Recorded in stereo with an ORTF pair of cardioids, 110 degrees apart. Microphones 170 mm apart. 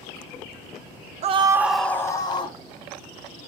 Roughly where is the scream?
Ahead right.